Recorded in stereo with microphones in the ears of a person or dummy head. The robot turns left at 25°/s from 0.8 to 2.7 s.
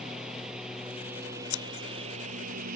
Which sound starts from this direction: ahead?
A lawn mower, at 0.0 s.